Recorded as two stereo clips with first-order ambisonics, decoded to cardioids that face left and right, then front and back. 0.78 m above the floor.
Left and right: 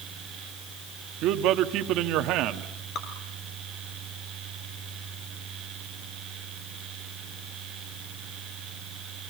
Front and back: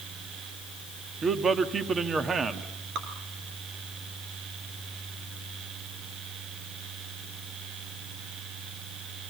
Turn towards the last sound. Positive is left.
turn(degrees=135)